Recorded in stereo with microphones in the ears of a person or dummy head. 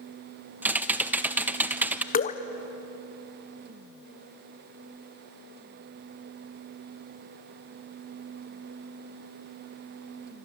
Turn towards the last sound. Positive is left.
turn(degrees=40)  # may be behind; listen again after turning